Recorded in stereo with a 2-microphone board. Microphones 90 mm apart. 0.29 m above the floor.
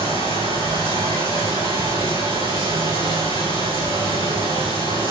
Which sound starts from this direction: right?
Running water, at 0.0 s.